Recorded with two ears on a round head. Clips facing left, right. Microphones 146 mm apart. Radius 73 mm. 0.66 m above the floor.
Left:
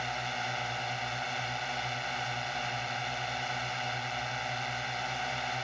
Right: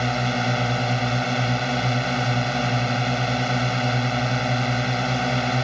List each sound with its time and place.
0.0 s a drone: 75° right (ahead or behind)